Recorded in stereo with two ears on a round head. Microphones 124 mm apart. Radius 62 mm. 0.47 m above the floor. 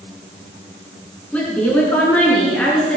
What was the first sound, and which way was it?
A woman speaking, 10° left (ahead or behind).